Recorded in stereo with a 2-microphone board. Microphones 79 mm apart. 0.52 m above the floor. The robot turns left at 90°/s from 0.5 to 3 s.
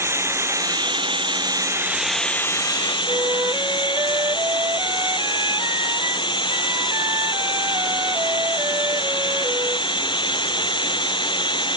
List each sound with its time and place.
0.0 s running water: 30° right; by 11.8 s 105° left
3.1 s a flute: 45° right (ahead or behind)